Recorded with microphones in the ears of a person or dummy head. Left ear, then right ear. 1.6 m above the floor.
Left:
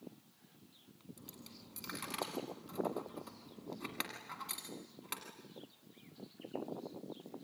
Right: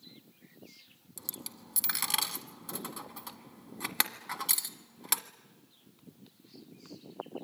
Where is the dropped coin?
45° right (ahead or behind), 1.4 m.